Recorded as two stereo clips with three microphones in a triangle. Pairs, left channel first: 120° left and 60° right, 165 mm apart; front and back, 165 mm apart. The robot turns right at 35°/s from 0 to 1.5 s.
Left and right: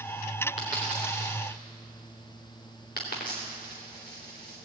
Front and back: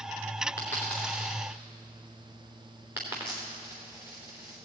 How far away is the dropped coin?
About 3 m.